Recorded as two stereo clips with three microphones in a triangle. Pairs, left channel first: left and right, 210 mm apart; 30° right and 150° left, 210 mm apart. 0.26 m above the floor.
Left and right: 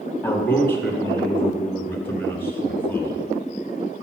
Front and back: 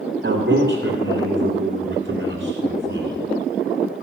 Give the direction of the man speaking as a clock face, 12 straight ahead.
6 o'clock.